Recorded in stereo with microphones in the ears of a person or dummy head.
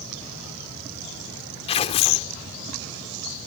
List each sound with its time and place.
1.7 s tearing paper: 30° left (ahead or behind)